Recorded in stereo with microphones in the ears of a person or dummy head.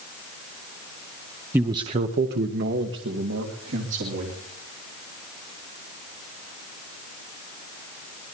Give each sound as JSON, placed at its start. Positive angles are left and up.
{"t": 1.5, "sound": "a man speaking", "side_deg": -10, "distance_m": 0.7}